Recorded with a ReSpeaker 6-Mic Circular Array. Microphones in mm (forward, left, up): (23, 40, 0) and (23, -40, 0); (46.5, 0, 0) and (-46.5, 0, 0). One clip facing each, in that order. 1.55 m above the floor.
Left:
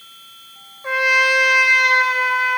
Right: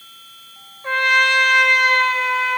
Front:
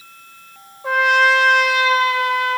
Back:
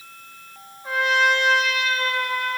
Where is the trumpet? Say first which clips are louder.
Even, front 5 dB; 10° left, 0.9 m.